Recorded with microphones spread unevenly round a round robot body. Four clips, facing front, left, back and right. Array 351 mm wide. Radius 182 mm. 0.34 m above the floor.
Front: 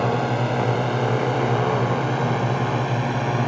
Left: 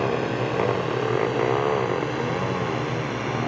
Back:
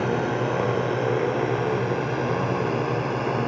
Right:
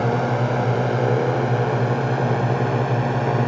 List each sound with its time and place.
0.0 s a drone: 75° right